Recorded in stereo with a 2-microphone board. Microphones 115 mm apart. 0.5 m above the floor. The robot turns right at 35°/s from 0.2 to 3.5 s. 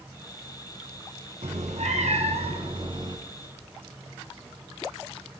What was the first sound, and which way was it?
A cat meowing, 100° right.